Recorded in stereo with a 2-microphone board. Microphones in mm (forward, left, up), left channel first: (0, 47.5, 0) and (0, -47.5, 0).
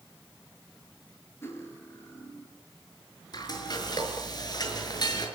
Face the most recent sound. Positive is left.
turn(degrees=45)  # may be behind; listen again after turning